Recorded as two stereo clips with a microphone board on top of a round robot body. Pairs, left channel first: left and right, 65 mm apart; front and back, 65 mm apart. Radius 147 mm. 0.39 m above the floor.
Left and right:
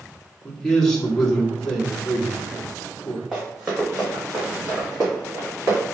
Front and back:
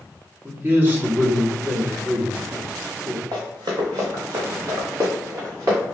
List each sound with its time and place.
0.4 s a man speaking: 165° left, 1.7 m
3.3 s running footsteps: 170° right, 1.8 m; by 5.8 s 140° right, 2.5 m